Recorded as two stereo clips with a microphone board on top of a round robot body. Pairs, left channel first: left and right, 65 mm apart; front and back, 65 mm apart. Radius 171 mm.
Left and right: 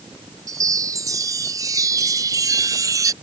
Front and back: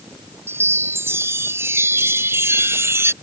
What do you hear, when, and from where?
0.5 s a chime: 130° right